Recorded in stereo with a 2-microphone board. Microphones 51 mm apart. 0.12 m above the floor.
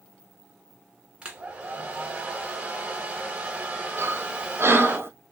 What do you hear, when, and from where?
1.2 s a hair dryer: 20° right (ahead or behind), 1.4 m
4.0 s breathing: 55° right (ahead or behind), 0.8 m